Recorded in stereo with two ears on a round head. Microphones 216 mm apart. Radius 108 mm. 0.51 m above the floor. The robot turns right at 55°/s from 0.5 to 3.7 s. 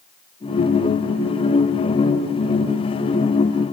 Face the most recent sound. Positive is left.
No sound to turn to.